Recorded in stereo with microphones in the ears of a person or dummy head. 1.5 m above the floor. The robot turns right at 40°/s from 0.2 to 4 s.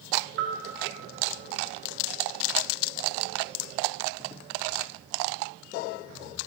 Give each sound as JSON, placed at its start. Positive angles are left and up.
{"t": 0.4, "sound": "a bell", "side_deg": -50, "distance_m": 1.2}